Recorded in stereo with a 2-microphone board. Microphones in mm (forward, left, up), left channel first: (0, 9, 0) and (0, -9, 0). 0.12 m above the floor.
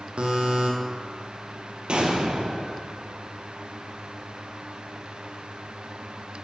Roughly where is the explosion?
Right.